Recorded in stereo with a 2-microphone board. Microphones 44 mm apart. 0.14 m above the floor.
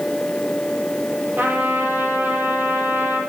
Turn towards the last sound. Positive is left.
turn(degrees=-45)  # may be behind; listen again after turning